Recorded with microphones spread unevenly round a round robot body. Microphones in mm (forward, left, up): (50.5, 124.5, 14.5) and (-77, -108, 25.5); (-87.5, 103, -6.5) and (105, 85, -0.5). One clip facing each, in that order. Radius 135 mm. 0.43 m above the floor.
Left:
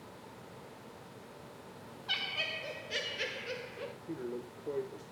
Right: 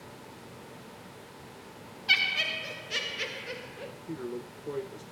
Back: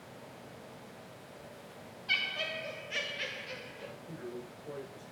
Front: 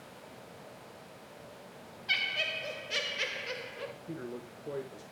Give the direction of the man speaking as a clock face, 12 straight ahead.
2 o'clock.